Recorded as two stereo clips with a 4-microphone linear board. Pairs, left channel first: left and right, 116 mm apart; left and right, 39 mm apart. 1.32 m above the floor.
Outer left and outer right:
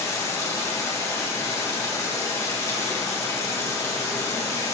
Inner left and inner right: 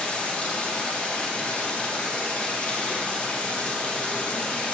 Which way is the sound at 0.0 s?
25° left (ahead or behind).